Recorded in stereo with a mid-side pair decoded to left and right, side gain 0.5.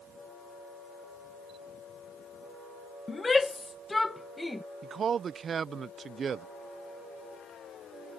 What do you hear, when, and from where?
3.1 s a shout: 25° left; by 4.6 s 10° left
4.8 s a man speaking: 45° right